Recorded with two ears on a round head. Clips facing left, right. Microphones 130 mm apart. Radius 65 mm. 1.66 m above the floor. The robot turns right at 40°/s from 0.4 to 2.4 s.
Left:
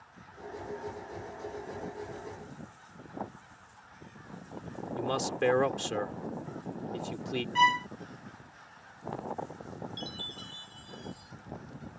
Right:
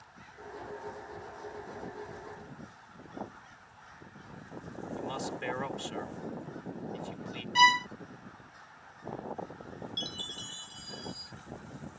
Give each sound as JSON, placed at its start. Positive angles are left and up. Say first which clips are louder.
{"t": 5.0, "sound": "a man speaking", "louder": "left 8 dB", "side_deg": 65}
{"t": 7.5, "sound": "a violin", "louder": "right 2 dB", "side_deg": -40}
{"t": 10.0, "sound": "a chime", "louder": "left 1 dB", "side_deg": -50}